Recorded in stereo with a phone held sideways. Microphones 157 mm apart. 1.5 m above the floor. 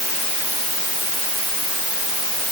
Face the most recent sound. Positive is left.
No sound to turn to.